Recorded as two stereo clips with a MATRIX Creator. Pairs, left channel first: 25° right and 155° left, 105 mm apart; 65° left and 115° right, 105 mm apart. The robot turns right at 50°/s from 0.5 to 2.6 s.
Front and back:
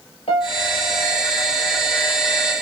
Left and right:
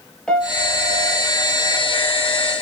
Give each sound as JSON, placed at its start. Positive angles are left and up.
{"t": 0.3, "sound": "a piano", "azimuth_deg": -15, "distance_m": 3.0}